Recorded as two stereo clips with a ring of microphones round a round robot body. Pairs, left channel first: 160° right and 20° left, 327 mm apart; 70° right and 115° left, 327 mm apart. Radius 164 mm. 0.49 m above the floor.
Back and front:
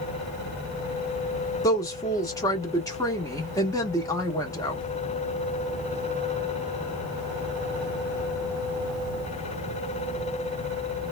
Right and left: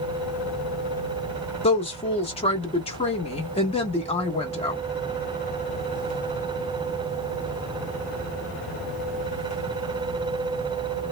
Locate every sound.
1.6 s a woman speaking: 100° right, 0.7 m